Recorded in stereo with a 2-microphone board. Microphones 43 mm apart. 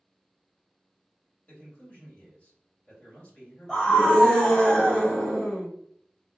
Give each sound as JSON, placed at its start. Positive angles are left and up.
{"t": 1.5, "sound": "a man speaking", "side_deg": 35, "distance_m": 2.0}
{"t": 3.7, "sound": "a scream", "side_deg": 15, "distance_m": 1.6}